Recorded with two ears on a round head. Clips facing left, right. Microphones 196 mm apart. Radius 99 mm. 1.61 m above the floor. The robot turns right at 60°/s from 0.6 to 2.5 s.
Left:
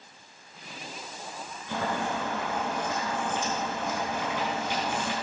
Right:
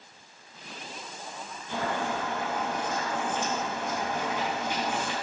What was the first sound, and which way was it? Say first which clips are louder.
Boiling: even; 70° left.